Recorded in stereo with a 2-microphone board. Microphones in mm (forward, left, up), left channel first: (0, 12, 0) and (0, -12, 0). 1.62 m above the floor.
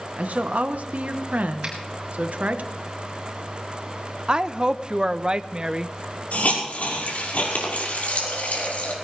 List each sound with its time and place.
0.2 s a woman speaking: 80° right, 1.3 m
1.6 s a finger snap: 35° right (ahead or behind), 6.5 m
4.3 s a woman speaking: 35° right (ahead or behind), 0.7 m
6.3 s a hiss: 90° left, 5.5 m